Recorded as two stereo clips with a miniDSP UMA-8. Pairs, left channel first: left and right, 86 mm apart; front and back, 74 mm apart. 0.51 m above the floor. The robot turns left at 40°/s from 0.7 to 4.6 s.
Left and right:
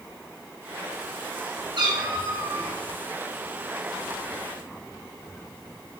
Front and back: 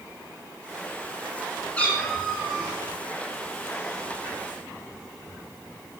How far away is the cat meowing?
About 6.5 m.